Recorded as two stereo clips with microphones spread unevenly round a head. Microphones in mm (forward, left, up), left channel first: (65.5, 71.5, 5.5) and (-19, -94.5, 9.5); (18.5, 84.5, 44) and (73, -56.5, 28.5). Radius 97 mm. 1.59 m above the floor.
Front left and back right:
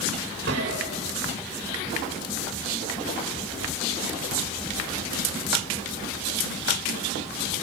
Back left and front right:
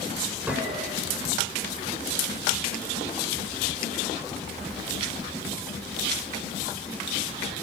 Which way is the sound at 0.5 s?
155° right.